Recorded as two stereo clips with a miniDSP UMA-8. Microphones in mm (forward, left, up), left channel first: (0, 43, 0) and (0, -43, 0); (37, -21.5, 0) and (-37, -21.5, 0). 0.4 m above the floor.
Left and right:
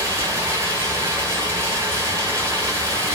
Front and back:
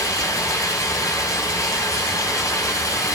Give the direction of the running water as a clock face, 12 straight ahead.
1 o'clock.